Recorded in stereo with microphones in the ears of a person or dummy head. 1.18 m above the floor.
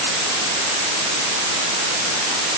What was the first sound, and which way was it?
Only background noise.